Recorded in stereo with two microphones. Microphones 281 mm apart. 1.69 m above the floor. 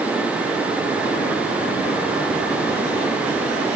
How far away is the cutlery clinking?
I don't hear cutlery clinking.